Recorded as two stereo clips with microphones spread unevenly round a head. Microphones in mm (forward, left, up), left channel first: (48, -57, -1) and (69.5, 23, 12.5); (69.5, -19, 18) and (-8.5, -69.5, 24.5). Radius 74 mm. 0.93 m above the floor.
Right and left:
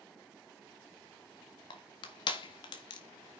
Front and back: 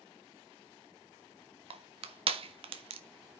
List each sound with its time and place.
1.7 s crushing: 135° right, 1.5 m